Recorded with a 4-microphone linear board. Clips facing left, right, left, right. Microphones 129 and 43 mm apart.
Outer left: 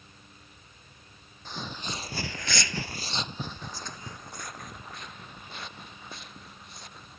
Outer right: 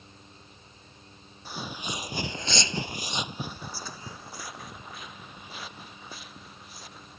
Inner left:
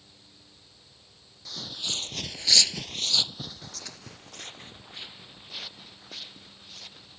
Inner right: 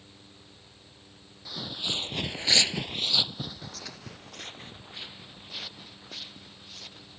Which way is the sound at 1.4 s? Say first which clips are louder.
Outer right 1 dB, inner right 2 dB; 10° right (ahead or behind).